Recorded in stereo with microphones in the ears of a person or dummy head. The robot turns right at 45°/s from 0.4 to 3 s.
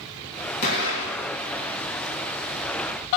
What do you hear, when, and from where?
0.6 s an explosion: 50° left, 3 m; by 1.3 s 80° left, 3 m